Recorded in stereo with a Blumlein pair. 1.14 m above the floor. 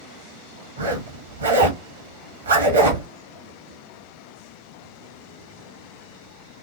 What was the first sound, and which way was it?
A zipper, 70° right.